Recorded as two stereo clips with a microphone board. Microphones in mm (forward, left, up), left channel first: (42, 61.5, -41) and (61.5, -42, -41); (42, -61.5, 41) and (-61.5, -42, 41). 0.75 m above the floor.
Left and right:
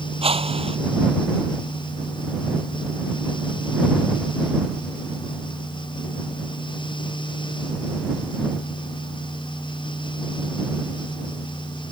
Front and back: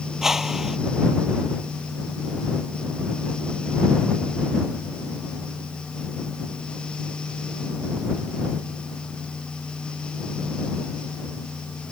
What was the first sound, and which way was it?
A whoosh, 105° right.